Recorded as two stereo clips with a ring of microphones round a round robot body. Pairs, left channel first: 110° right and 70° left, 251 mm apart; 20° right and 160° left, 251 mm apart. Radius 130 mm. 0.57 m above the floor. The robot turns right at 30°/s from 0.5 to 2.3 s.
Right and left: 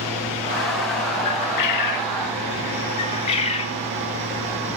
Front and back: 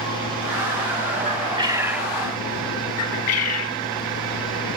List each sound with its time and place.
1.2 s a bird: 140° right, 0.7 m; by 2.2 s 110° right, 0.7 m
3.0 s a bird: 45° right, 0.7 m